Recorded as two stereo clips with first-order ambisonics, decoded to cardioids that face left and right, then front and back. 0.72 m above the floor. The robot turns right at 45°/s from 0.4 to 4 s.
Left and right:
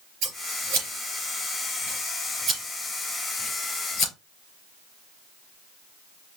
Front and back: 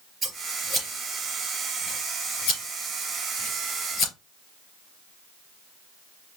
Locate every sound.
0.2 s scissors: 110° right, 3.5 m; by 4.1 s 50° left, 3.5 m